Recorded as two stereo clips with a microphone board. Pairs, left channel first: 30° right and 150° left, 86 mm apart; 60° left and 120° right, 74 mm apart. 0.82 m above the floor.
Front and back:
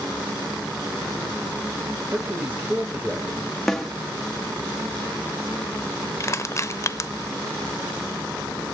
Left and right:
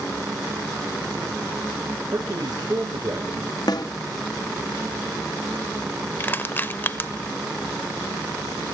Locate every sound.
2.1 s a man speaking: 145° right, 3.5 m
3.7 s a snare drum: 55° left, 1.3 m
6.2 s crushing: 10° left, 0.6 m